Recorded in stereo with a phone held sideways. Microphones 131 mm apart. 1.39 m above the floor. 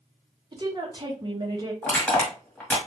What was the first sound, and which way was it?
A woman speaking, 30° right (ahead or behind).